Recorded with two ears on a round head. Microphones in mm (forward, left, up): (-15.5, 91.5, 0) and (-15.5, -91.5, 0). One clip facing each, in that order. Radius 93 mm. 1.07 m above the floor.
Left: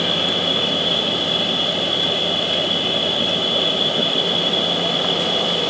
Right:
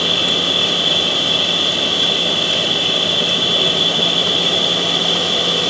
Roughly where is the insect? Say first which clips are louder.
Right 1 dB; right.